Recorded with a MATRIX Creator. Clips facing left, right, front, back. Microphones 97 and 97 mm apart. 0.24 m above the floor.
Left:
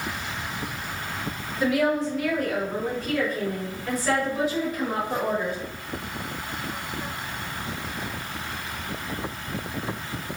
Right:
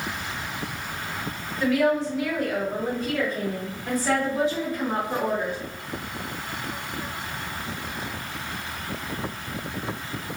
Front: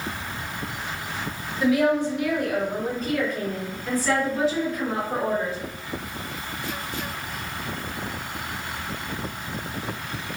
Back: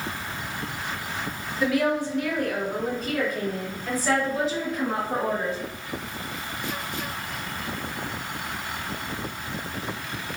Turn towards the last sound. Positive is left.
turn(degrees=-120)